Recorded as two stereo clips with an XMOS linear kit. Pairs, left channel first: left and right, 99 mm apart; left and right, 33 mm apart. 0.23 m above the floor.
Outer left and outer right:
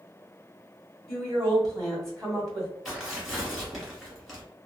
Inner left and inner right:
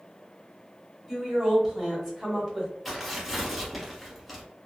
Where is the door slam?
I don't hear a door slam.